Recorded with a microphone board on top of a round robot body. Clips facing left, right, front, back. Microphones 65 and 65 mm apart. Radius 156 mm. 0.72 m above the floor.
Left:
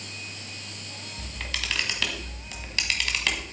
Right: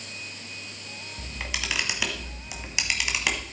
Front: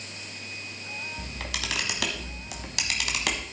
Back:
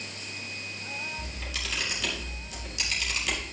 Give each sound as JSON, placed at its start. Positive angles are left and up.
{"t": 1.2, "sound": "a camera shutter", "azimuth_deg": -15, "distance_m": 1.1}